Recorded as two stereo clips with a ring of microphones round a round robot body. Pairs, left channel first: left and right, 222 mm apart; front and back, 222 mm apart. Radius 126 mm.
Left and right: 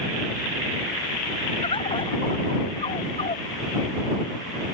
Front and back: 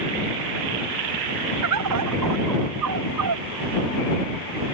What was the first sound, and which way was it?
A bird, 160° left.